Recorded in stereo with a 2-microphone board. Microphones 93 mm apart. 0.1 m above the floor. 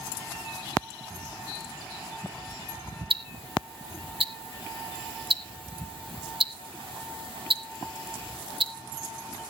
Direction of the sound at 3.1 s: 70° right (ahead or behind).